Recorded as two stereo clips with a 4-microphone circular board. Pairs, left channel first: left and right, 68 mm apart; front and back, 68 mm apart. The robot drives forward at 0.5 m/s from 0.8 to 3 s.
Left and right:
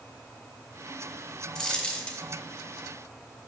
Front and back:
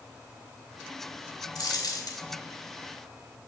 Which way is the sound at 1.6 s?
10° left.